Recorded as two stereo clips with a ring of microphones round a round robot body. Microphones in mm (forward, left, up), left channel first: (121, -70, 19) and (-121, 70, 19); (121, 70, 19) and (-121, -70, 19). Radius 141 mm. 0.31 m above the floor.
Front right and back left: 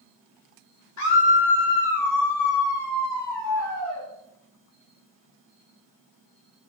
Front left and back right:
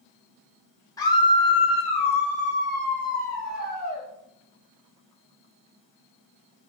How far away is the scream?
About 2.5 m.